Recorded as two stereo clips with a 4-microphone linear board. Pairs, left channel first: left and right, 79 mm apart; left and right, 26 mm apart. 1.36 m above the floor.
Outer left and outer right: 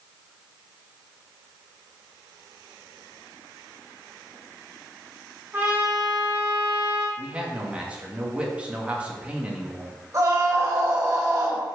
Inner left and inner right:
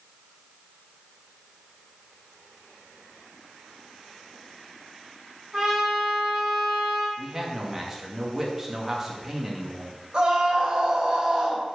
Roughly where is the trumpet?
Right.